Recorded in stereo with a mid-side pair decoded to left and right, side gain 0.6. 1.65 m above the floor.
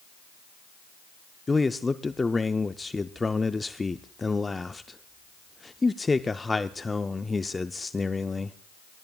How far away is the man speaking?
About 0.5 m.